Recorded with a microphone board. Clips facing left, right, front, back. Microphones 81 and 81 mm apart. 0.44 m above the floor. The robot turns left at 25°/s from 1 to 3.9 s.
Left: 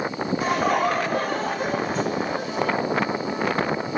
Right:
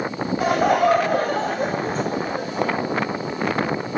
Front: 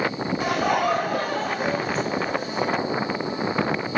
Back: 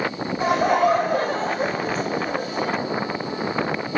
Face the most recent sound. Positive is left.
turn(degrees=175)